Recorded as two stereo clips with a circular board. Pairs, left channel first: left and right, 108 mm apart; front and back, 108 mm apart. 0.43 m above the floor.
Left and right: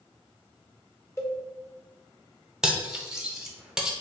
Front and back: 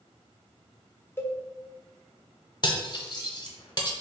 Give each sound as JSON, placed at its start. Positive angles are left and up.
{"t": 1.2, "sound": "a cowbell", "azimuth_deg": 50, "distance_m": 1.0}
{"t": 2.6, "sound": "cutlery clinking", "azimuth_deg": -10, "distance_m": 0.7}